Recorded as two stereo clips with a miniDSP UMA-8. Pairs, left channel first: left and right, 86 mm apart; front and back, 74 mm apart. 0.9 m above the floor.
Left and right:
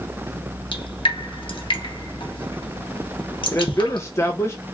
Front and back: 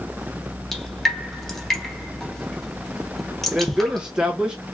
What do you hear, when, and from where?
0.7 s dripping: 85° left, 1.0 m
3.5 s a man speaking: 110° left, 0.7 m